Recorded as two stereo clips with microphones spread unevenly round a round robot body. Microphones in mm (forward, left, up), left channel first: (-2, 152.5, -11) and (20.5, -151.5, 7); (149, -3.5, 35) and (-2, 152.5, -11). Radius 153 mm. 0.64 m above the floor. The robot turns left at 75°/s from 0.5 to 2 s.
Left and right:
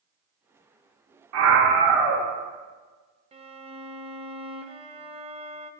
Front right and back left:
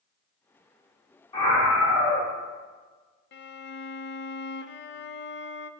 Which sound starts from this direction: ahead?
A violin, at 3.3 s.